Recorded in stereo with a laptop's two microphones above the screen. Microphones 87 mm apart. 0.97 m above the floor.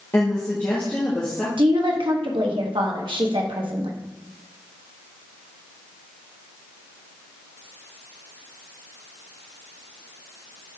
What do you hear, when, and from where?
0.1 s a woman speaking: 30° left (ahead or behind), 1.1 m; by 1.5 s 15° left (ahead or behind), 1.6 m
1.6 s a woman speaking: 70° right (ahead or behind), 1.2 m